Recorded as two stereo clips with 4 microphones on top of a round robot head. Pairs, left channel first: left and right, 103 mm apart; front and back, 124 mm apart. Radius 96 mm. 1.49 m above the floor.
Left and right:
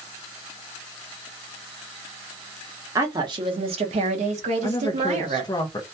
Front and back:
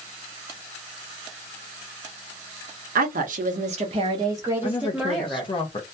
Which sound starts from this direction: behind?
A woman speaking, at 3.0 s.